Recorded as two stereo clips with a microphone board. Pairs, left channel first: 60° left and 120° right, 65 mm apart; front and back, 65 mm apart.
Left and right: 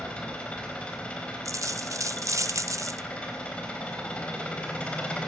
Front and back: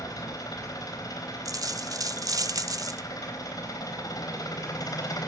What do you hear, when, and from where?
0.0 s an engine running: 15° right, 4 m
1.4 s a dropped coin: 155° right, 0.6 m